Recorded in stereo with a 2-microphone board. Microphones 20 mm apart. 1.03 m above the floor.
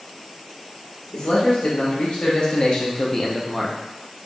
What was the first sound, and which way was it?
A man speaking, 65° left (ahead or behind).